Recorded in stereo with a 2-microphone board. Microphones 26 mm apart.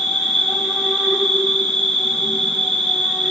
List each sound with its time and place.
0.0 s an insect: 70° left (ahead or behind), 4 m